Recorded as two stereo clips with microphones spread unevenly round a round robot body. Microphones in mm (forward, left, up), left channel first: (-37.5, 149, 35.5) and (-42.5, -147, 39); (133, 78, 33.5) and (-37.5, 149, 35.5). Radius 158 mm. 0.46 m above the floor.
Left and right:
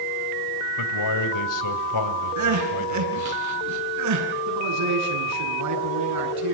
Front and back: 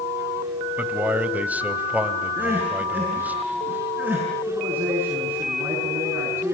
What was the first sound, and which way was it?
A man speaking, 75° left.